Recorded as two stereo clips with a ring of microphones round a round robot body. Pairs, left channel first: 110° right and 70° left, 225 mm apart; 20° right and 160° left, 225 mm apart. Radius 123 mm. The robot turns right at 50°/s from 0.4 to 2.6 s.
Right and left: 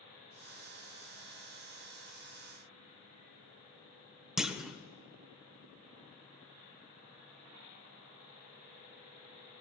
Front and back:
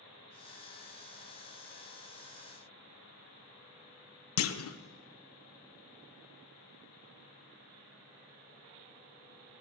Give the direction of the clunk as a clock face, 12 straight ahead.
1 o'clock.